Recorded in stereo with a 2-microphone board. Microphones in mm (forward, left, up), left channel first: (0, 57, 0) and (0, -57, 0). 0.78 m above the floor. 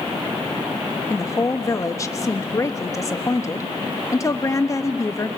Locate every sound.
1.1 s a woman speaking: 30° left (ahead or behind), 0.9 m